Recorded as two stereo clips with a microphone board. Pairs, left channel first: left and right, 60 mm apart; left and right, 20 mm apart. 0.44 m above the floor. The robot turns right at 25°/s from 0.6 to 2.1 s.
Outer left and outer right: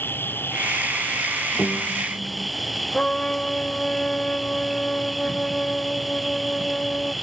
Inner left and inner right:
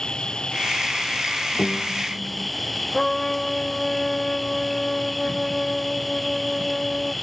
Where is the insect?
140° left; by 7.2 s straight behind.